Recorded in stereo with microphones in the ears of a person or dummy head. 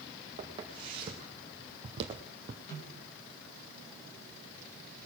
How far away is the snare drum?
About 5 m.